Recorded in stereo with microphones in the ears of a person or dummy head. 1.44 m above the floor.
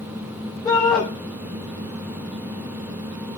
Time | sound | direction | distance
0.7 | a shout | 15° left (ahead or behind) | 5 m